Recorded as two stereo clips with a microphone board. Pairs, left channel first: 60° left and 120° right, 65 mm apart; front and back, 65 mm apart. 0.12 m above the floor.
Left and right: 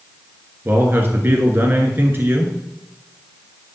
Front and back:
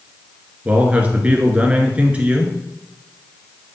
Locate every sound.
0.7 s a man speaking: 130° right, 1.4 m